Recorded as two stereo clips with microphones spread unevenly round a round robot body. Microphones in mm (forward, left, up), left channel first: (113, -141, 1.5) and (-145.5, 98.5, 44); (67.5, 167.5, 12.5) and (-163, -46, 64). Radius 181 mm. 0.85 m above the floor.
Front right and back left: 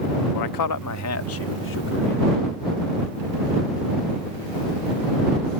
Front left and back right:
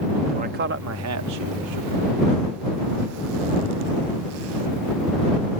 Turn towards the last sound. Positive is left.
turn(degrees=-105)